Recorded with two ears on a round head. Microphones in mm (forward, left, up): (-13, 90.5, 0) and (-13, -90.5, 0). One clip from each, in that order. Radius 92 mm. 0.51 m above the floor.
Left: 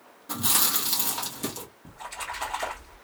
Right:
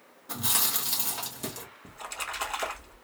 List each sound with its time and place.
0.3 s chewing: 5° left (ahead or behind), 1.3 m
1.9 s a splash: 40° right (ahead or behind), 1.4 m